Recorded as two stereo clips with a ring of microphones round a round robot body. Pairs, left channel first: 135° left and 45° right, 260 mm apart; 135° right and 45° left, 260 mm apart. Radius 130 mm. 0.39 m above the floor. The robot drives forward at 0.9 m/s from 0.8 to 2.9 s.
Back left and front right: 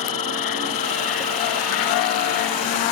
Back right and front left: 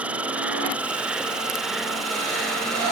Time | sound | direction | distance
0.0 | an insect | 130° left | ?